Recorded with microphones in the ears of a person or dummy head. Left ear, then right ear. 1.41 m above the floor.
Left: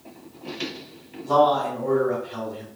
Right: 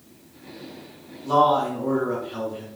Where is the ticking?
I don't hear ticking.